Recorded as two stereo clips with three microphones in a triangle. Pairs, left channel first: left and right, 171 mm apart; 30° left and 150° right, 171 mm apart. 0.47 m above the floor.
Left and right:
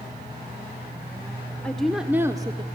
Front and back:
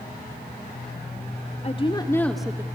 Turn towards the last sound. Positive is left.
turn(degrees=-95)